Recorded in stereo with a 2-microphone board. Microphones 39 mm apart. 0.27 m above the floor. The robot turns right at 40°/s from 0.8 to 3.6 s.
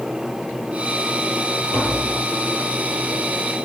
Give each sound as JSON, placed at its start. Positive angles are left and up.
{"t": 1.7, "sound": "tapping", "side_deg": 70, "distance_m": 5.0}